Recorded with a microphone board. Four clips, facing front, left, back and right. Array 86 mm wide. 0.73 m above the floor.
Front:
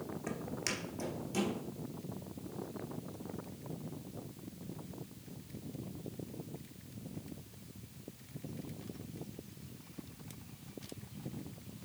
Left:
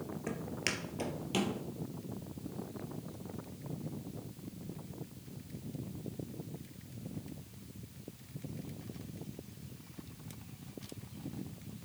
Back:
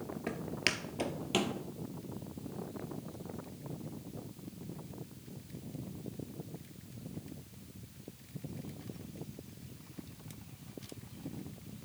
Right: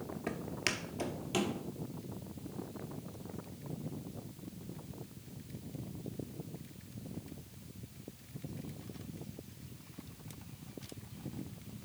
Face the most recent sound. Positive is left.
turn(degrees=175)